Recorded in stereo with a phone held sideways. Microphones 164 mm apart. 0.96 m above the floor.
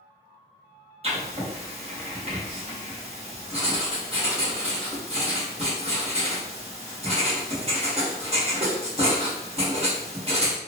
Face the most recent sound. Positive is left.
turn(degrees=-40)  # may be behind; listen again after turning